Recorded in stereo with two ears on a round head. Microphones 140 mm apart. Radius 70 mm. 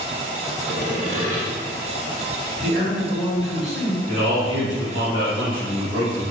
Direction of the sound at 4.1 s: 30° right (ahead or behind).